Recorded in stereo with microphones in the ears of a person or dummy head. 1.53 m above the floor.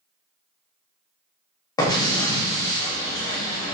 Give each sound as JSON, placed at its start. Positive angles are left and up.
{"t": 1.8, "sound": "an explosion", "side_deg": 20, "distance_m": 0.5}